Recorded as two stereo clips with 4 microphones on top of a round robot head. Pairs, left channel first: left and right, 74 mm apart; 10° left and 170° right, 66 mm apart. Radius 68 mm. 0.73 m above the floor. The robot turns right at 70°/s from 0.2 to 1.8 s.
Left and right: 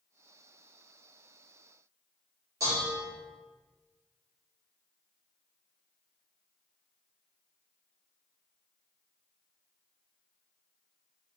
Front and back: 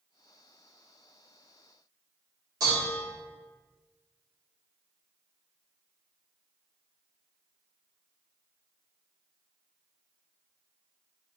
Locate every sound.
2.6 s dishes clattering: 140° right, 1.2 m